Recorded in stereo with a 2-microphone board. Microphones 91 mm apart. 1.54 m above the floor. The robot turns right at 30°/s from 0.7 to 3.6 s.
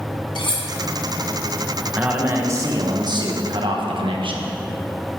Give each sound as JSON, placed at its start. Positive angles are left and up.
{"t": 0.3, "sound": "cutlery clinking", "side_deg": 60, "distance_m": 1.6}
{"t": 1.9, "sound": "a man speaking", "azimuth_deg": -165, "distance_m": 1.5}